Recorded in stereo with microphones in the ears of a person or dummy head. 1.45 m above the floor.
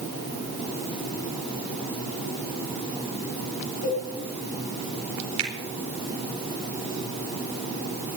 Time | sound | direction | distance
3.8 | a cowbell | 65° left (ahead or behind) | 5 m
5.4 | a finger snap | 75° right (ahead or behind) | 4 m